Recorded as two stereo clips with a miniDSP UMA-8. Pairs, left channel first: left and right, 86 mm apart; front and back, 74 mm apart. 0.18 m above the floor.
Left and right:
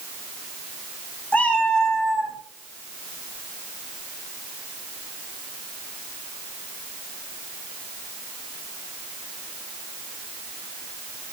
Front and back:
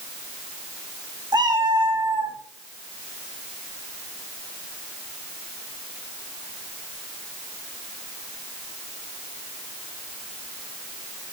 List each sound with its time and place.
1.3 s a cat meowing: 160° left, 2 m; by 2.4 s 175° right, 2.0 m